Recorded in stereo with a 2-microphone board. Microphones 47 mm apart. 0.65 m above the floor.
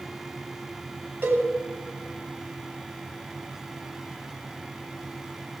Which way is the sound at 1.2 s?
60° right (ahead or behind).